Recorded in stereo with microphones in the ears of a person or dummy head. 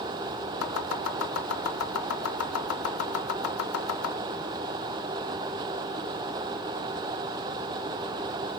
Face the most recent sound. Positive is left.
turn(degrees=75)  # may be behind; listen again after turning